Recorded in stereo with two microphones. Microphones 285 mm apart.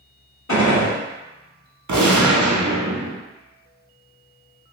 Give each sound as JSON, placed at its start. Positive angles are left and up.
{"t": 0.5, "sound": "a gunshot", "side_deg": 75, "distance_m": 1.8}
{"t": 1.9, "sound": "a gunshot", "side_deg": -80, "distance_m": 0.7}